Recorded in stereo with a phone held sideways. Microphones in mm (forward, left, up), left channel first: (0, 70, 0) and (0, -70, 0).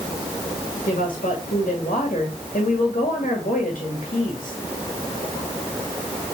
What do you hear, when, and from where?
0.9 s a woman speaking: 70° left (ahead or behind), 2 m